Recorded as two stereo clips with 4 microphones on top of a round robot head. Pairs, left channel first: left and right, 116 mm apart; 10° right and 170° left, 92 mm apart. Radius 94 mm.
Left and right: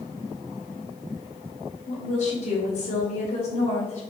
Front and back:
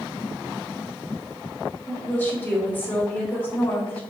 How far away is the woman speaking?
About 3.5 m.